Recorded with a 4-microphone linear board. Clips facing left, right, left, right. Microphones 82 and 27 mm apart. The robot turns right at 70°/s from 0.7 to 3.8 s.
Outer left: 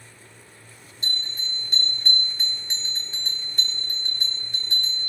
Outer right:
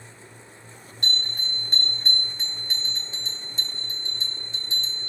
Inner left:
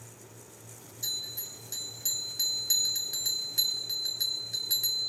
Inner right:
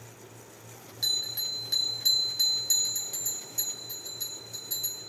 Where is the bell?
95° right, 1.9 m; by 5.1 s 100° left, 1.9 m.